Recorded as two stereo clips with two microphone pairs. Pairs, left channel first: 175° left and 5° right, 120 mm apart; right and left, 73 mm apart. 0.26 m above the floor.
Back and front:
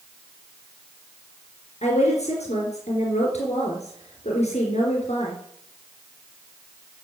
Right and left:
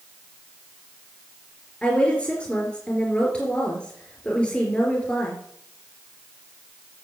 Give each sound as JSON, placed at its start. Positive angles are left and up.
{"t": 1.8, "sound": "a woman speaking", "azimuth_deg": -165, "distance_m": 3.5}